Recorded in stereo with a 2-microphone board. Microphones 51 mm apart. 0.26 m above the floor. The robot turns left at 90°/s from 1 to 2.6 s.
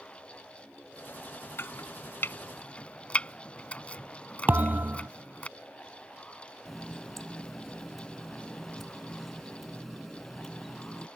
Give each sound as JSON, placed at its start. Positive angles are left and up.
{"t": 1.6, "sound": "chopping", "side_deg": 50}
{"t": 4.5, "sound": "a thud", "side_deg": -40}
{"t": 6.7, "sound": "a running tap", "side_deg": 5}